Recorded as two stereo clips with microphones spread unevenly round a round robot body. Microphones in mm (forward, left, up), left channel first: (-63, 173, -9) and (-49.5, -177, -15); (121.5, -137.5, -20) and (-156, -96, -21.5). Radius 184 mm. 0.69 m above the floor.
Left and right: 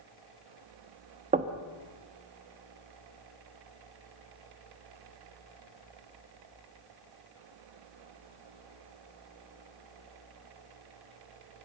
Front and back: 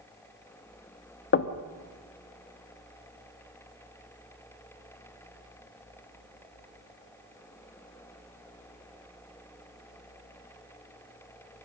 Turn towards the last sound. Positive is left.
turn(degrees=-25)